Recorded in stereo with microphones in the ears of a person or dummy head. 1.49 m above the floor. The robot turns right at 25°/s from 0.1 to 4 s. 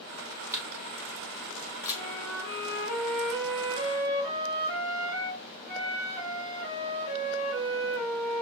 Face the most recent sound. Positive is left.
turn(degrees=-100)